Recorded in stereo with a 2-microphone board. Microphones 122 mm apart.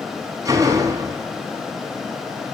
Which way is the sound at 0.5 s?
30° right (ahead or behind).